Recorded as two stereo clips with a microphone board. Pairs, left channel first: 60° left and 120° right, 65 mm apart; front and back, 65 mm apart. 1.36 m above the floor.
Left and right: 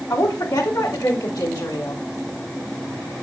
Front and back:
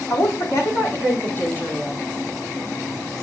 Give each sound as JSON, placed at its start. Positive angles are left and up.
{"t": 0.1, "sound": "a woman speaking", "azimuth_deg": 40, "distance_m": 3.5}